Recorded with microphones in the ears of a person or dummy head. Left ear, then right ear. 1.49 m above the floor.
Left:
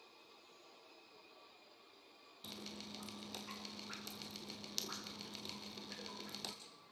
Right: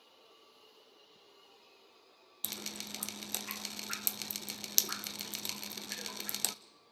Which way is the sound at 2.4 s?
55° right (ahead or behind).